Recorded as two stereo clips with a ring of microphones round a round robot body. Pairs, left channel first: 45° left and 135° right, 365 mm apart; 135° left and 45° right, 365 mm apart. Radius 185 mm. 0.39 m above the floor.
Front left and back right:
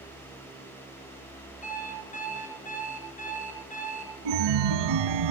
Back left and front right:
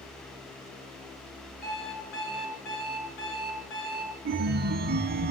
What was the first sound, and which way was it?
An alarm clock, 115° left.